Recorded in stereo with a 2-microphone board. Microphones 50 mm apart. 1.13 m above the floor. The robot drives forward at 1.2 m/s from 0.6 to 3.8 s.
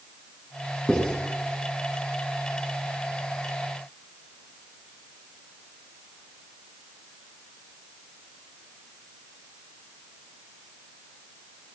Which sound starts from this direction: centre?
Writing, at 0.9 s.